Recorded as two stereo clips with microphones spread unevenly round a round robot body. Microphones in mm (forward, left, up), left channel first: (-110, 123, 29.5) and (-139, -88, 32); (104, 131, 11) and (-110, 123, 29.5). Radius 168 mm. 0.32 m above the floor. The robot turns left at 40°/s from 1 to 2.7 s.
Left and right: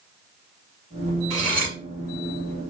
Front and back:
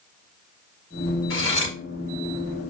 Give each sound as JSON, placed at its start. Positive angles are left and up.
{"t": 1.3, "sound": "cutlery clinking", "azimuth_deg": -20, "distance_m": 3.5}